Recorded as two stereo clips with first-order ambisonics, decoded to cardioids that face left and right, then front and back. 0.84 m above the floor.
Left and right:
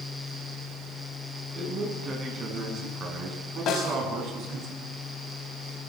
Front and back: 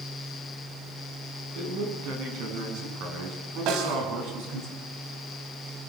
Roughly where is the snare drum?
Behind left.